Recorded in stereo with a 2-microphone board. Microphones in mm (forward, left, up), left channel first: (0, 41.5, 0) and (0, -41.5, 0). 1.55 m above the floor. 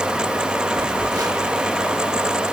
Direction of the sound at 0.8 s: 55° right (ahead or behind).